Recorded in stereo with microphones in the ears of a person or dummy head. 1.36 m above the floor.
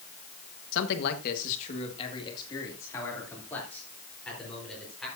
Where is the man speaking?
75° left (ahead or behind), 1.4 m; by 5.1 s 5° left (ahead or behind), 4.5 m.